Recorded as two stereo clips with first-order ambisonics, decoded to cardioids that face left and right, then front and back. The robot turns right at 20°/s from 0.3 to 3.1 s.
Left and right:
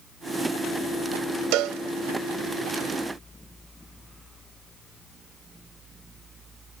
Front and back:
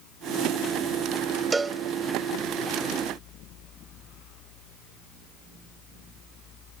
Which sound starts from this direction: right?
A cowbell, at 1.5 s.